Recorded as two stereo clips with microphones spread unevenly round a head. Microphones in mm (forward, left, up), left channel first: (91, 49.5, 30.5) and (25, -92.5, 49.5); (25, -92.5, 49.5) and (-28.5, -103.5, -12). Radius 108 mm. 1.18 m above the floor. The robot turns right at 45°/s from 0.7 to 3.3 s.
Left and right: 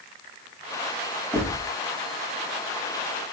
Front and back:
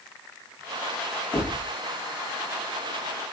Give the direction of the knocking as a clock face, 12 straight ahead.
1 o'clock.